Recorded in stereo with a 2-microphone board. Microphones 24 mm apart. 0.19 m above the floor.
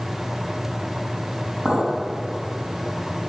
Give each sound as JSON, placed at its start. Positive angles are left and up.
{"t": 1.6, "sound": "a clink", "side_deg": -55, "distance_m": 3.5}